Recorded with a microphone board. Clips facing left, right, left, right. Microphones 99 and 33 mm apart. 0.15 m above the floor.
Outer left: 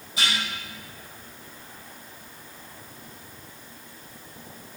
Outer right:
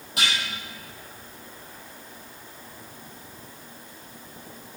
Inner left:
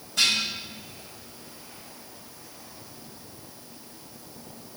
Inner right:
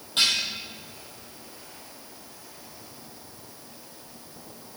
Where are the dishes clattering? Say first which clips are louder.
Even, even; 75° right (ahead or behind), 3 m.